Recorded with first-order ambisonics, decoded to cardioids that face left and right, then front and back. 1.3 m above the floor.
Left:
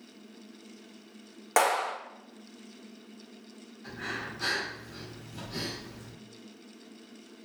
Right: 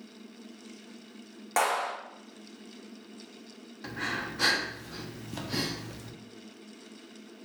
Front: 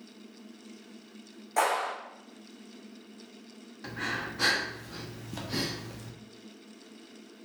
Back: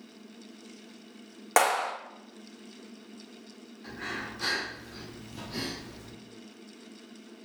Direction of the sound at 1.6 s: 160° left.